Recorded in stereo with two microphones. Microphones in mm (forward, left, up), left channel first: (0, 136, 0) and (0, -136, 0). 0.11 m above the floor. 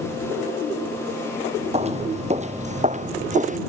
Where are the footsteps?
25° right (ahead or behind).